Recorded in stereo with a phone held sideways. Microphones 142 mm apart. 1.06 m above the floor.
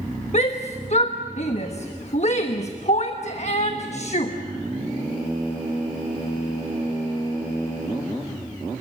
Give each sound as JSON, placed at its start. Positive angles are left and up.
{"t": 0.3, "sound": "a shout", "side_deg": 50, "distance_m": 1.2}